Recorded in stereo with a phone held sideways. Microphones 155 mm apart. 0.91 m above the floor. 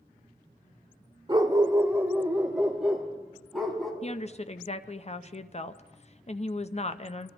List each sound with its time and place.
1.3 s a dog barking: 30° right (ahead or behind), 0.8 m; by 3.9 s centre (ahead or behind), 2 m
4.0 s a woman speaking: 45° left (ahead or behind), 0.5 m